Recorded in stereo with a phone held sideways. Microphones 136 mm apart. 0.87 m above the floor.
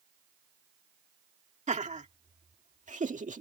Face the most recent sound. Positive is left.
turn(degrees=-65)  # may be behind; listen again after turning